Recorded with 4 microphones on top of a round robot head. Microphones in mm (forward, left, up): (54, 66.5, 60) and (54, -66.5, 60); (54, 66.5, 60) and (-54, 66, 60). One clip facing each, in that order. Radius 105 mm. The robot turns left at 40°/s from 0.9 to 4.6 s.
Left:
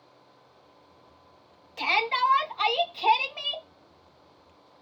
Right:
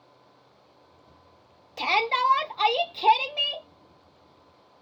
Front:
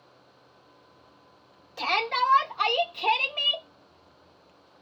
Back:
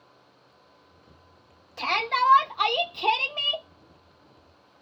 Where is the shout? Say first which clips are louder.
Right 2 dB, back 1 dB; 80° right, 0.9 m; by 3.7 s 155° right, 0.9 m.